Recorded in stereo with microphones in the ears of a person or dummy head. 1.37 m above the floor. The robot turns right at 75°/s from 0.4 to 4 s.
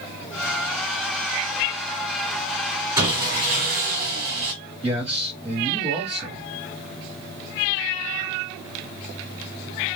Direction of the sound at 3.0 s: 160° right.